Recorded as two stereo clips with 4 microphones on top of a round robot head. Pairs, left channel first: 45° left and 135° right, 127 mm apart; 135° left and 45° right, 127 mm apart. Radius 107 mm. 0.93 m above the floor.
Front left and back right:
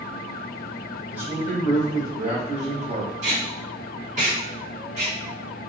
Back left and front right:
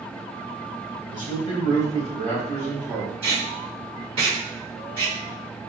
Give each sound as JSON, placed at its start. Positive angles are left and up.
{"t": 1.1, "sound": "a man speaking", "azimuth_deg": -60, "distance_m": 1.9}
{"t": 3.2, "sound": "tape being pulled", "azimuth_deg": -95, "distance_m": 2.0}